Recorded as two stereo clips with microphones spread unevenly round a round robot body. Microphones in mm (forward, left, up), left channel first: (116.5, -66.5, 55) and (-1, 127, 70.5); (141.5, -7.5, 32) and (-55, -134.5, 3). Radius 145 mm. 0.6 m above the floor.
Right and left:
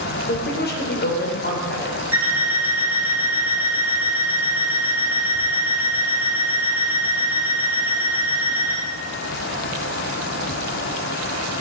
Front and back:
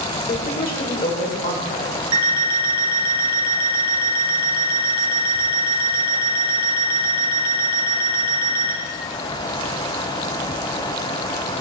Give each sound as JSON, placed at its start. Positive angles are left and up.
{"t": 0.3, "sound": "a woman speaking", "azimuth_deg": -20, "distance_m": 2.0}
{"t": 2.1, "sound": "an alarm clock", "azimuth_deg": -155, "distance_m": 2.0}